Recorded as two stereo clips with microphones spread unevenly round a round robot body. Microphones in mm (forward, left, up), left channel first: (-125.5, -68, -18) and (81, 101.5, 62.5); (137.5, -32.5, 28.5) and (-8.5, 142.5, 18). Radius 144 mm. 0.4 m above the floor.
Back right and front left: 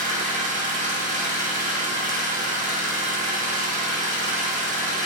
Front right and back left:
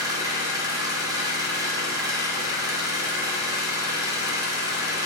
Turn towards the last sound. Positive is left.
turn(degrees=100)